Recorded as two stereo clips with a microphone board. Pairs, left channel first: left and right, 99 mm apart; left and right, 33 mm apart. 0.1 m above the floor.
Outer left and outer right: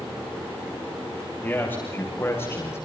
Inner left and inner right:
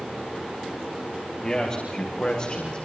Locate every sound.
1.4 s a man speaking: 20° left (ahead or behind), 7.5 m; by 2.9 s 25° left (ahead or behind), 5.5 m